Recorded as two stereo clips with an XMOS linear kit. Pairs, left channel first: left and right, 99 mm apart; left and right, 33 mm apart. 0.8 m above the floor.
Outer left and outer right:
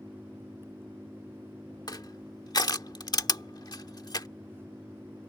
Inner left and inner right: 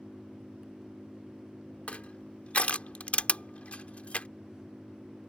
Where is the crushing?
45° left (ahead or behind).